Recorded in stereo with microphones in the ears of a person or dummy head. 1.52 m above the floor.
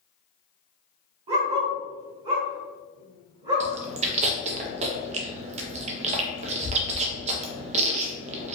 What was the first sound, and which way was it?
A dog barking, 35° right (ahead or behind).